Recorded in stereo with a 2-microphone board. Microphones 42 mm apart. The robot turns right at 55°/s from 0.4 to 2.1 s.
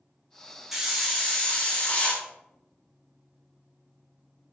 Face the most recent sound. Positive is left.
turn(degrees=65)